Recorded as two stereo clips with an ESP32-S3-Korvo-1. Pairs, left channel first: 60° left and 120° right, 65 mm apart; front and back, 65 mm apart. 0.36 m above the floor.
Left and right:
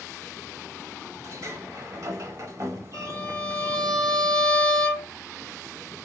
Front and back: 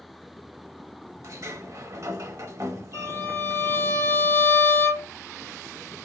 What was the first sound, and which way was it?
A sliding door, 150° right.